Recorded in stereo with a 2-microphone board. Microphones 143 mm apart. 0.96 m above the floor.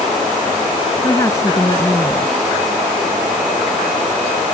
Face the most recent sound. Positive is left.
turn(degrees=20)  # may be behind; listen again after turning